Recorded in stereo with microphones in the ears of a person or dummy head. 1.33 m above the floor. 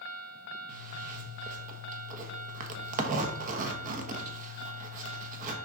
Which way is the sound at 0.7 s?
45° right (ahead or behind).